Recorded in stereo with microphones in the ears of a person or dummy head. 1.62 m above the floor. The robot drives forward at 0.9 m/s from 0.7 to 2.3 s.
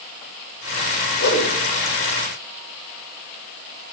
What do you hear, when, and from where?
1.2 s a whoosh: 65° left (ahead or behind), 1.7 m; by 1.5 s 70° left (ahead or behind), 1.6 m